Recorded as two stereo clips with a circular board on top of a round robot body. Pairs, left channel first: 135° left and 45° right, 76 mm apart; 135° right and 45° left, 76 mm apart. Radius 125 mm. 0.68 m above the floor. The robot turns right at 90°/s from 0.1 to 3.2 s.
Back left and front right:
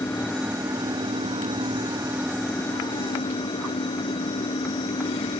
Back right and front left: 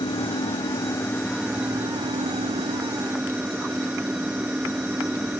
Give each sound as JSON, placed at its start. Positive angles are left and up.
{"t": 0.0, "sound": "an engine running", "azimuth_deg": -160}